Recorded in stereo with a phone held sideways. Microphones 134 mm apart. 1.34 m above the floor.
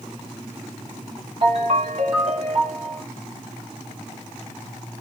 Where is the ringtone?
50° right (ahead or behind), 2.5 m.